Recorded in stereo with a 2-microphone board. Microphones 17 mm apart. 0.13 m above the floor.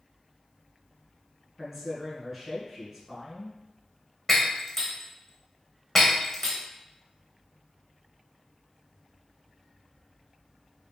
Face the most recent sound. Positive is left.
turn(degrees=15)  # may be behind; listen again after turning